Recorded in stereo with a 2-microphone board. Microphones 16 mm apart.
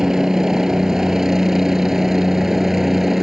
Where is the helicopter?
45° right (ahead or behind); by 3.2 s 25° right (ahead or behind).